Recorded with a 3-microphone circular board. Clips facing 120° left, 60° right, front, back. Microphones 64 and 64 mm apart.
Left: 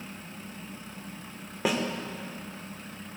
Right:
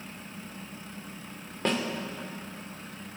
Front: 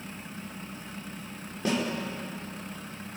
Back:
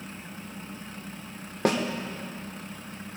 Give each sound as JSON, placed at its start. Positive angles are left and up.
{"t": 1.6, "sound": "a snare drum", "azimuth_deg": -155, "distance_m": 1.6}